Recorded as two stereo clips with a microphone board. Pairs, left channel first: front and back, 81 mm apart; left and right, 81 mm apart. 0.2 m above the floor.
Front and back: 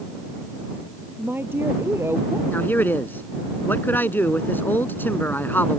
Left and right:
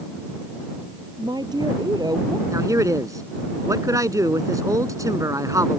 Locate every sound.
1.2 s a woman speaking: 115° right; by 2.4 s 125° right
2.5 s a man speaking: 60° right